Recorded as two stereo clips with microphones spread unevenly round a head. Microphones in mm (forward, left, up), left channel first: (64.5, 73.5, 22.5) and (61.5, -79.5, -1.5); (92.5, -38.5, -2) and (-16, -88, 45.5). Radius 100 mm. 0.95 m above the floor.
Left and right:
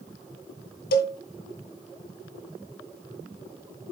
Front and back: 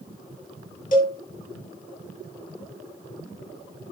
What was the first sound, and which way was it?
A cowbell, 80° left.